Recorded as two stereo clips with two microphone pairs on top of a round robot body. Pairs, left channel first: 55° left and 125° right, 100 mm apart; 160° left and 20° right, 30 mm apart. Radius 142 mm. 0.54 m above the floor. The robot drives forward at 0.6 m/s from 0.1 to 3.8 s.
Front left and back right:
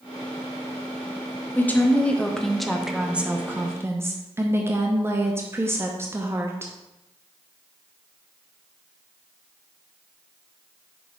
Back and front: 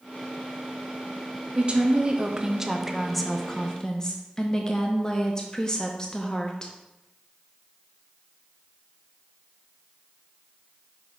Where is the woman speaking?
10° right, 1.4 m; by 6.7 s 160° right, 1.1 m.